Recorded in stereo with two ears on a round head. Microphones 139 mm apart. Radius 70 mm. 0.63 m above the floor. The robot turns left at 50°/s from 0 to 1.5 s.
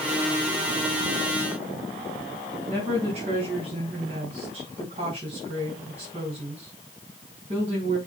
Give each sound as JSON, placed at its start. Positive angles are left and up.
{"t": 2.7, "sound": "a woman speaking", "side_deg": -40, "distance_m": 5.0}